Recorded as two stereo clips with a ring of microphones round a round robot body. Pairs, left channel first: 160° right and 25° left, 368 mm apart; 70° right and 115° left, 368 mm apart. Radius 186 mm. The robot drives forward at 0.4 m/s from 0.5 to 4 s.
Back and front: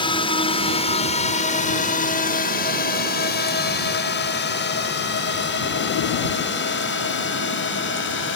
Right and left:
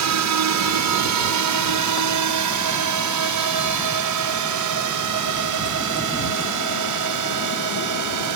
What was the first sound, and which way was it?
A drone, 130° left.